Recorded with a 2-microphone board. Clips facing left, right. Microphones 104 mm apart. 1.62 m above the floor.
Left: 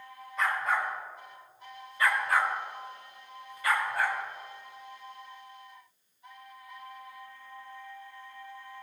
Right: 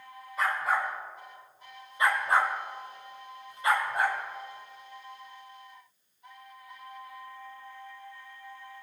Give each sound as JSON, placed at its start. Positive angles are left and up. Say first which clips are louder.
{"t": 0.4, "sound": "a dog barking", "louder": "right 1 dB", "side_deg": -5, "distance_m": 4.0}